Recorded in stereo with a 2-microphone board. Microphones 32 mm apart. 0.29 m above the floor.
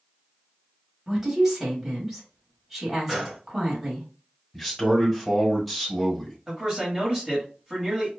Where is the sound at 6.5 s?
15° right (ahead or behind), 1.7 m.